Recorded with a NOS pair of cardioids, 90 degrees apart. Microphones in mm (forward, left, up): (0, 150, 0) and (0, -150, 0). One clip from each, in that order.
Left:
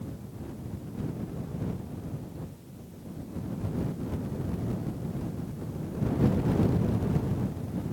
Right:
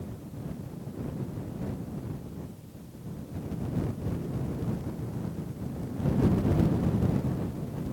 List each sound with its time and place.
Only background noise.